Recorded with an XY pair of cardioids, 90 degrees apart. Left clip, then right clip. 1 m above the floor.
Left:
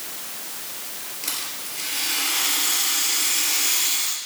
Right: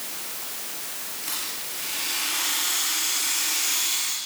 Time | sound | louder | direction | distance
1.2 | a rattle | left 2 dB | 60° left | 4.5 m